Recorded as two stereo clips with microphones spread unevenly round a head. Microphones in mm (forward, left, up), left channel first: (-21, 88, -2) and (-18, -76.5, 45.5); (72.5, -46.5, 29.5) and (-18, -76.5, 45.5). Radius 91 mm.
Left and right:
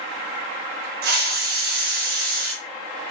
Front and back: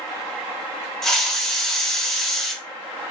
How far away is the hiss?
About 0.8 m.